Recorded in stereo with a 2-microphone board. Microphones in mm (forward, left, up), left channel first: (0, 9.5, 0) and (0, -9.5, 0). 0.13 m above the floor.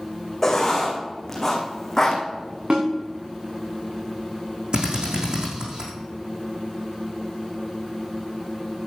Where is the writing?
10° left (ahead or behind), 2.5 m.